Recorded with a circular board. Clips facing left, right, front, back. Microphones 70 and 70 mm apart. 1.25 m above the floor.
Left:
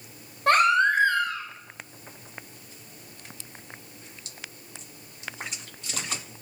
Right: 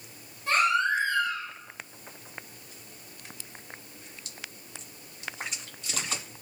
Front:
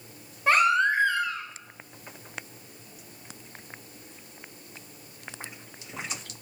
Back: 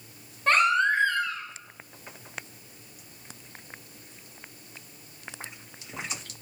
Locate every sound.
0.5 s a baby crying: 80° left, 2 m